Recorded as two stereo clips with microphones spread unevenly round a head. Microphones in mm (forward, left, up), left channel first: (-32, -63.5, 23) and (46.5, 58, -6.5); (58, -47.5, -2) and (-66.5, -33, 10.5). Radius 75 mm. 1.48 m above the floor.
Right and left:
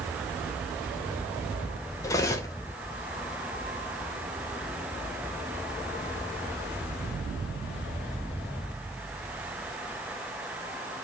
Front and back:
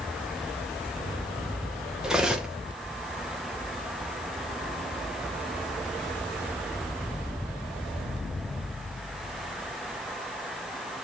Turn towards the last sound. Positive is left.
turn(degrees=-120)